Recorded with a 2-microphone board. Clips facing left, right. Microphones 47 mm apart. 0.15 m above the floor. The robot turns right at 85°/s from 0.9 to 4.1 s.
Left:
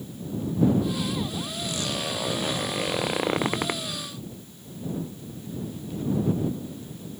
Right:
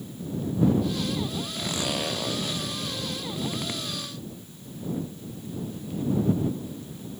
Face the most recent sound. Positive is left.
turn(degrees=175)